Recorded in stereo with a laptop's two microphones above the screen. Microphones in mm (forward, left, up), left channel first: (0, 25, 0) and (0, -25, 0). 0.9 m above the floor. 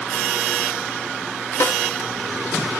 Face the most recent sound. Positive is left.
turn(degrees=50)  # may be behind; listen again after turning